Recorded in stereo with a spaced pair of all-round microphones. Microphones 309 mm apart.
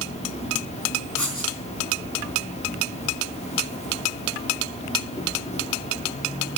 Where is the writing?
75° left (ahead or behind), 3.5 m.